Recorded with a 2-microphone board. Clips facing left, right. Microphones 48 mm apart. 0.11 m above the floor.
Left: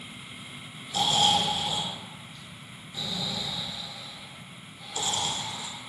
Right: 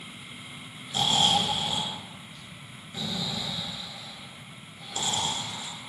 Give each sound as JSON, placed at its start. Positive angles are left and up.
{"t": 0.9, "sound": "snoring", "side_deg": -30, "distance_m": 1.0}